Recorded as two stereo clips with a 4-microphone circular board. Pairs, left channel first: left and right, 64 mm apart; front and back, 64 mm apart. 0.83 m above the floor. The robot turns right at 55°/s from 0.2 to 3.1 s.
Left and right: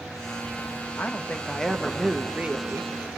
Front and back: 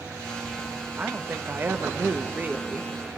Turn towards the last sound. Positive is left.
turn(degrees=-110)